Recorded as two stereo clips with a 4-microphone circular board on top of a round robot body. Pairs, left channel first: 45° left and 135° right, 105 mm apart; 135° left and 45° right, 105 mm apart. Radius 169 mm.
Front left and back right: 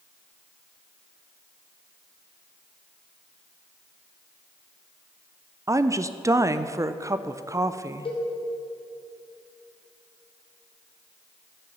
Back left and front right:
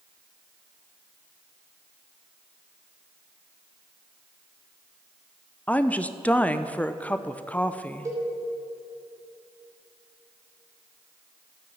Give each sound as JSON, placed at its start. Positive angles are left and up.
{"t": 5.7, "sound": "a woman speaking", "azimuth_deg": -160, "distance_m": 0.7}
{"t": 8.1, "sound": "a cowbell", "azimuth_deg": 15, "distance_m": 2.5}